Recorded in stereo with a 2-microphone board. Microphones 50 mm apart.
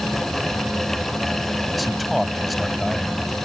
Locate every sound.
1.7 s a man speaking: centre (ahead or behind); by 3.4 s 5° left (ahead or behind)